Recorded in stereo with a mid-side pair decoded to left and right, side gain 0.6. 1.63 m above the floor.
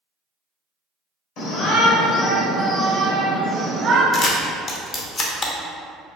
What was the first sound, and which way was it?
A shout, 65° left.